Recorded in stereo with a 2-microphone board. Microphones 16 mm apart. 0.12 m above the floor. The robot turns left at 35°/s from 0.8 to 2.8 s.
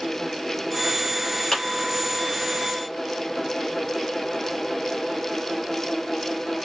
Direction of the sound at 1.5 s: 25° left (ahead or behind).